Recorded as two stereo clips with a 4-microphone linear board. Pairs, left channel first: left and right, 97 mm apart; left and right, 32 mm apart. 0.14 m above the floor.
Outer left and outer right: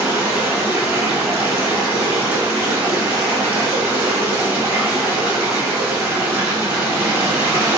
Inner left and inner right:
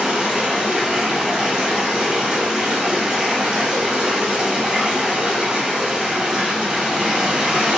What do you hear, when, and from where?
0.0 s running water: 20° right (ahead or behind), 1.1 m